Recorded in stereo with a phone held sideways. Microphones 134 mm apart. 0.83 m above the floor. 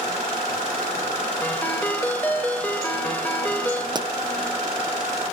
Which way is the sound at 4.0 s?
30° right (ahead or behind).